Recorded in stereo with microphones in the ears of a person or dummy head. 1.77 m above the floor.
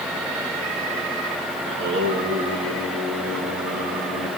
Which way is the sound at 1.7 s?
65° right (ahead or behind).